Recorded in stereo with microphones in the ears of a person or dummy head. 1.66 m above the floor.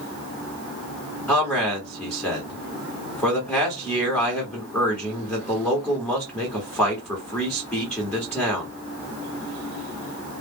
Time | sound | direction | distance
1.3 | a man speaking | 5° left (ahead or behind) | 1.0 m